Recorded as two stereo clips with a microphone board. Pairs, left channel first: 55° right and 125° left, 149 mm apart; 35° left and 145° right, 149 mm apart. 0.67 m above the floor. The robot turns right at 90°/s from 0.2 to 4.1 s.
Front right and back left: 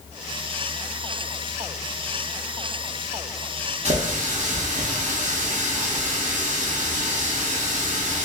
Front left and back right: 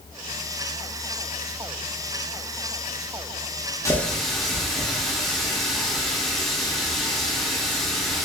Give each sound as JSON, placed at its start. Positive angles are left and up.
{"t": 3.9, "sound": "a running tap", "azimuth_deg": 100, "distance_m": 0.7}